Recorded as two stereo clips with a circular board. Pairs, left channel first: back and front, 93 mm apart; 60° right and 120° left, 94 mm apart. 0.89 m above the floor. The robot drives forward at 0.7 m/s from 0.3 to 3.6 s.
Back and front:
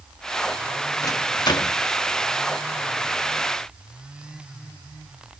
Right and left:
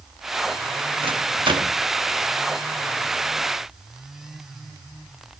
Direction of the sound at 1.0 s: 130° left.